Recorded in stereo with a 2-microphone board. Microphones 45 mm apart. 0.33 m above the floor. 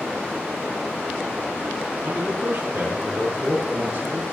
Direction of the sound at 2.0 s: 20° right (ahead or behind).